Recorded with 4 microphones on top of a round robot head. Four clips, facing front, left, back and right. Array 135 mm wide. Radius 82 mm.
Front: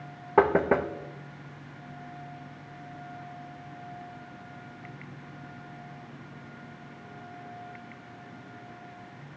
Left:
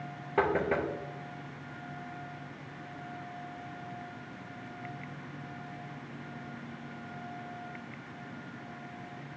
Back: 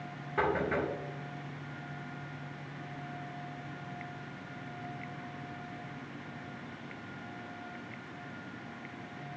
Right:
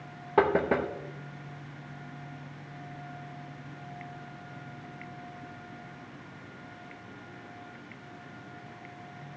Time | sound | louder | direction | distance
0.4 | knocking | right 4 dB, front 9 dB | 20° right | 0.6 m